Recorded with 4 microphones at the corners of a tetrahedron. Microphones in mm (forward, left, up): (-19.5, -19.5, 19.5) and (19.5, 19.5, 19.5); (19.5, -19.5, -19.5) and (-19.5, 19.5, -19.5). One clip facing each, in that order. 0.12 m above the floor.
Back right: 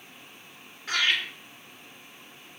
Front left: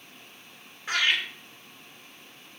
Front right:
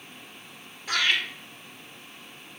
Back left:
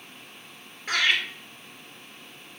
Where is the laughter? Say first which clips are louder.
Front left 1 dB, back left 1 dB; 115° left, 1.9 m.